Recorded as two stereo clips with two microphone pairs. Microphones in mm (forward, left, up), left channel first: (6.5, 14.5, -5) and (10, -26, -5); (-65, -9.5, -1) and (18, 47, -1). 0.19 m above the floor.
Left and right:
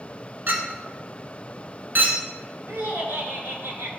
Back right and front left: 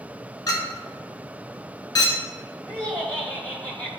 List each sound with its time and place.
0.5 s a clink: 100° right, 1.0 m
2.7 s laughter: 70° right, 2.5 m